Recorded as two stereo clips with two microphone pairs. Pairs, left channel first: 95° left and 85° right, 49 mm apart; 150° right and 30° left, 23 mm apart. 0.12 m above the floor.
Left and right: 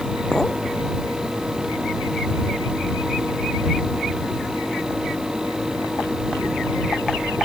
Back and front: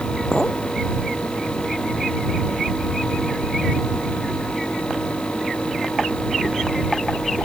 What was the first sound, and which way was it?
A clink, 165° left.